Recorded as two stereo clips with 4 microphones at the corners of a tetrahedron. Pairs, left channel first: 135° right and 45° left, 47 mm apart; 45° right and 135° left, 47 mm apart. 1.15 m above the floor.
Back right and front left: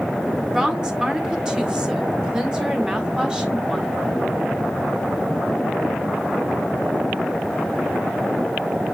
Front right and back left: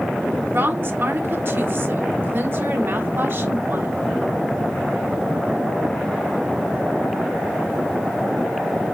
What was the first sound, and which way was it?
A woman speaking, 120° left.